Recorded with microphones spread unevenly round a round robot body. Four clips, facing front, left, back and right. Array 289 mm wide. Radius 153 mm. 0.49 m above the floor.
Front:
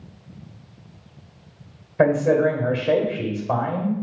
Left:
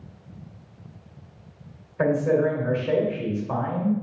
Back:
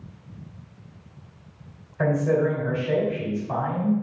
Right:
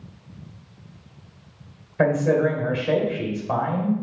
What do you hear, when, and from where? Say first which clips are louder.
2.0 s a man speaking: right 2 dB, front 5 dB; 20° right, 1.7 m